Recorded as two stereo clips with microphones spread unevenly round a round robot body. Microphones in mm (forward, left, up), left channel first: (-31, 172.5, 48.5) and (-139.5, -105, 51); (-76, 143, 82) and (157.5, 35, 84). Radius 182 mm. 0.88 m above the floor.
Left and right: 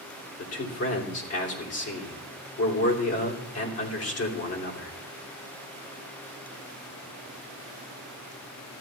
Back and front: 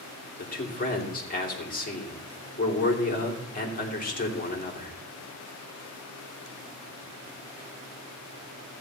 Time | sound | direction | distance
0.4 | a man speaking | 100° left | 3 m